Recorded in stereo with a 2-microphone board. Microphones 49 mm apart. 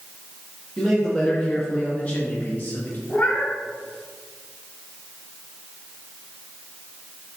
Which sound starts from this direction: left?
A cat meowing, at 3.1 s.